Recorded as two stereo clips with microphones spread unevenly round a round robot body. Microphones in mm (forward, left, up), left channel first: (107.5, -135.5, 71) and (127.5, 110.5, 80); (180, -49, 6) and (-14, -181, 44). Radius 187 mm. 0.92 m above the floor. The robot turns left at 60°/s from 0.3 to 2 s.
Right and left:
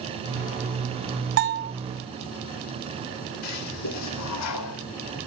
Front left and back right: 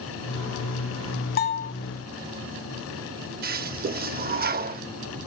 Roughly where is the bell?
Left.